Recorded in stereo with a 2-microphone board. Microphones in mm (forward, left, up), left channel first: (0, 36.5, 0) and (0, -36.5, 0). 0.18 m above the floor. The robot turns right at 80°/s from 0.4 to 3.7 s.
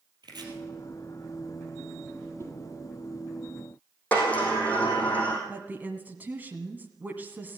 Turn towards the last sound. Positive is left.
turn(degrees=-25)  # may be behind; listen again after turning